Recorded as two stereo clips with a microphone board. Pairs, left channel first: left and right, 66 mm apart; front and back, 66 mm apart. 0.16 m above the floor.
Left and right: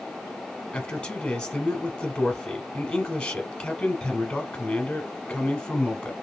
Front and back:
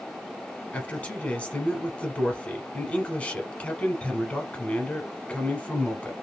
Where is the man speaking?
40° left, 1.1 m.